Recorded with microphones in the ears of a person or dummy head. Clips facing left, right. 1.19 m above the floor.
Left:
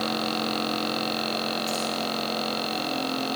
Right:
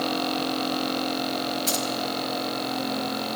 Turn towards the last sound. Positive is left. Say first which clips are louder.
# right 1 dB
turn(degrees=-70)  # may be behind; listen again after turning